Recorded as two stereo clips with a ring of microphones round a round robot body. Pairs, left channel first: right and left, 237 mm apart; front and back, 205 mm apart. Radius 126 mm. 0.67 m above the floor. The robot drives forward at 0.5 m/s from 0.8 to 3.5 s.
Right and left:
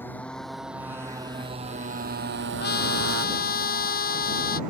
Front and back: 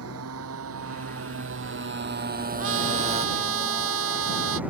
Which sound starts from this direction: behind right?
A trumpet, at 2.6 s.